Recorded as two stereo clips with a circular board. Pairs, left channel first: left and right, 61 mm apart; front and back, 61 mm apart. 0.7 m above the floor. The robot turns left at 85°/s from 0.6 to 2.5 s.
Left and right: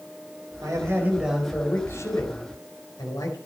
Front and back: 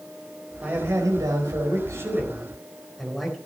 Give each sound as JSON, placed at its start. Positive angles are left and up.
{"t": 0.6, "sound": "a man speaking", "azimuth_deg": -110, "distance_m": 4.0}